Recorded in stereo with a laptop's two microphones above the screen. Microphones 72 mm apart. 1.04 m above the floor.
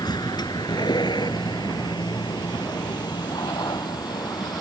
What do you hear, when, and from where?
0.0 s a vehicle: 75° left (ahead or behind)